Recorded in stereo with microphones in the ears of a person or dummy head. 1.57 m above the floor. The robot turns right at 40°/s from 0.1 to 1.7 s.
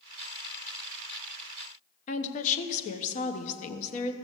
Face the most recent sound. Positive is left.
turn(degrees=40)  # may be behind; listen again after turning